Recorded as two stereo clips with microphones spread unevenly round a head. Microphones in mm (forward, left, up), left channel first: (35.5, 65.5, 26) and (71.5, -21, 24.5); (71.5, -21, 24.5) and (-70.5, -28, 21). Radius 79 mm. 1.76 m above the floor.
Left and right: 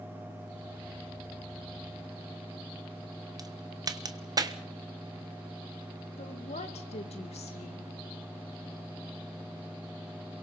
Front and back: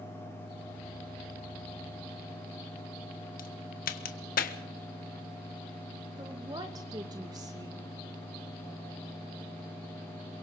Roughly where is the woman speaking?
Behind left.